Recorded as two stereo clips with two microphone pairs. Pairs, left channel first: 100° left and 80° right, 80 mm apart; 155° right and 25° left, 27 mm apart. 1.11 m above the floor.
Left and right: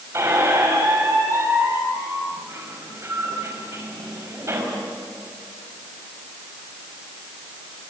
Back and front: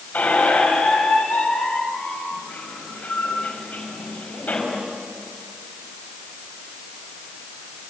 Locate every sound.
0.1 s a squeak: 135° right, 5 m